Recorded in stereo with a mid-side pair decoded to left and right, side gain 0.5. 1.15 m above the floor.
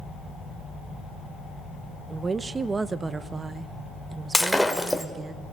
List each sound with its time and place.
2.1 s a woman speaking: 30° right, 0.9 m
4.3 s breaking glass: straight ahead, 1.8 m